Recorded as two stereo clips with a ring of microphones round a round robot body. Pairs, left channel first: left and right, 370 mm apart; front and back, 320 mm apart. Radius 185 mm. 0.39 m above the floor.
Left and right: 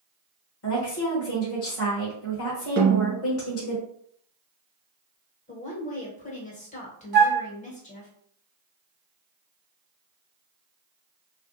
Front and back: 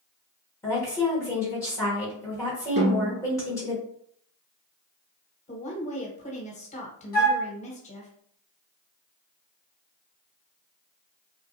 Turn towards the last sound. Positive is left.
turn(degrees=-45)